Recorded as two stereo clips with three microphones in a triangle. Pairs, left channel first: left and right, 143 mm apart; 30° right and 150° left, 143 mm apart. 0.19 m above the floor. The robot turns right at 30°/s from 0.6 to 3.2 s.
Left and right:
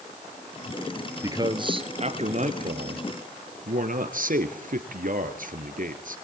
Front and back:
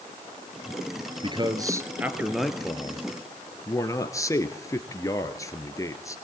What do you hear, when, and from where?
1.2 s a man speaking: 155° right, 2.5 m; by 6.2 s 95° right, 2.5 m